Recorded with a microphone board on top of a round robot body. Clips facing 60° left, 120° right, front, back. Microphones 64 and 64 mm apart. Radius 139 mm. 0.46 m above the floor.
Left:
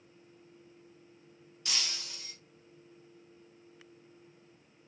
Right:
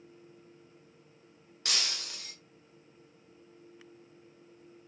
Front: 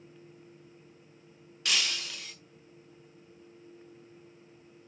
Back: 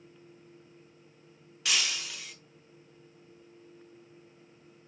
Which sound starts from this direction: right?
Breaking glass, at 1.6 s.